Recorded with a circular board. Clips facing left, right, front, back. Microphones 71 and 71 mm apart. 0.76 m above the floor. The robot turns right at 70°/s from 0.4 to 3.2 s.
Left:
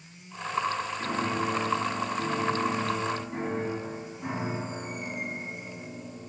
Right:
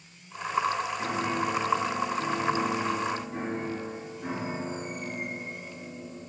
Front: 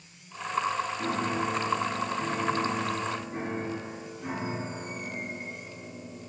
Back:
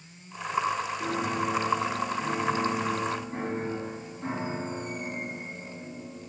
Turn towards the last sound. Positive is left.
turn(degrees=130)